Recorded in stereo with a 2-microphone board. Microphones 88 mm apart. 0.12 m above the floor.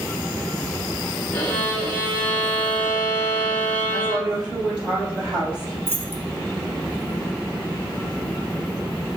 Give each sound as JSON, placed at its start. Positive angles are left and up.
{"t": 1.3, "sound": "a violin", "side_deg": 20, "distance_m": 0.9}
{"t": 3.9, "sound": "a woman speaking", "side_deg": -10, "distance_m": 2.5}
{"t": 5.9, "sound": "keys jangling", "side_deg": -25, "distance_m": 1.6}